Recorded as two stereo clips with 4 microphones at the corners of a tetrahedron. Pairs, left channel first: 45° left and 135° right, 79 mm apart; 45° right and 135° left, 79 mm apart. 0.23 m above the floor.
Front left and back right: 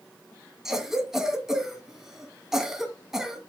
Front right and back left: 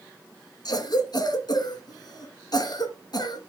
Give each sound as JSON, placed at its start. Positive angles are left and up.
{"t": 0.7, "sound": "a cough", "azimuth_deg": -50, "distance_m": 2.0}